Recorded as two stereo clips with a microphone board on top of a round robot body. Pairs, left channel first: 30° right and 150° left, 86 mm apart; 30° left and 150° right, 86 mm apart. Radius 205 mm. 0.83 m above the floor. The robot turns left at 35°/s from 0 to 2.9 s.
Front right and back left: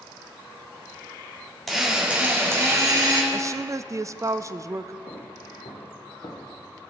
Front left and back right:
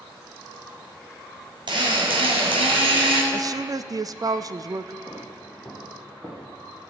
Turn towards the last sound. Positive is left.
turn(degrees=-110)